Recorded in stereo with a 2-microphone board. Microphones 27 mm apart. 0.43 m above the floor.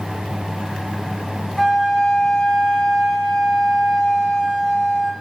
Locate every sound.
1.6 s a flute: 10° left (ahead or behind), 3 m